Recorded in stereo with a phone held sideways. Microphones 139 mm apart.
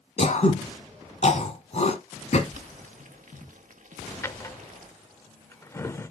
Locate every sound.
0.2 s throat clearing: 55° left (ahead or behind), 1.6 m
2.5 s boiling: 65° right (ahead or behind), 1.2 m
4.2 s a drawer: 20° left (ahead or behind), 0.8 m